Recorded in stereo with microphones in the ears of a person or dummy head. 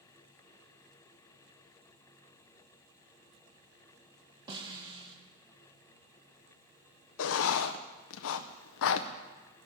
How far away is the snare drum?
About 1.7 m.